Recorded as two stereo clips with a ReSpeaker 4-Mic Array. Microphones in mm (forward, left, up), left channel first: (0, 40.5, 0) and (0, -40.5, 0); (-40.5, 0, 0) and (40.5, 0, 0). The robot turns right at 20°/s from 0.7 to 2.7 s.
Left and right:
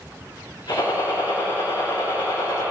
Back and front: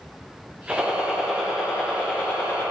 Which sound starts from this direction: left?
A gunshot, at 0.7 s.